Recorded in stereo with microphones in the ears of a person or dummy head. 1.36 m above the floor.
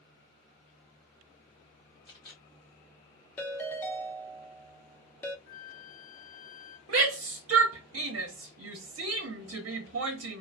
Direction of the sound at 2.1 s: 30° left (ahead or behind).